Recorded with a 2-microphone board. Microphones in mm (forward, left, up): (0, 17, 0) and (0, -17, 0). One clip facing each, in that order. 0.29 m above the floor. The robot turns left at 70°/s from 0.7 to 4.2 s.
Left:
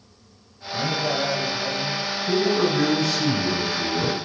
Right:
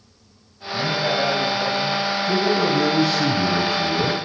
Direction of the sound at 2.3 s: 20° left.